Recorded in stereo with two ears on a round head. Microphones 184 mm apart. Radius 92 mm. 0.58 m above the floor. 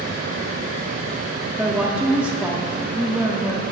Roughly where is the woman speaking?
Centre.